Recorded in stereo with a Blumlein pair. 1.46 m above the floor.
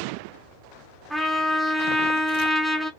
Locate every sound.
1.1 s a trumpet: straight ahead, 0.9 m